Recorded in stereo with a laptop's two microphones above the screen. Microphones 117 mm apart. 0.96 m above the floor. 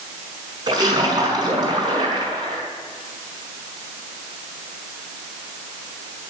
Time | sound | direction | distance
0.7 | a splash | 35° right (ahead or behind) | 5.5 m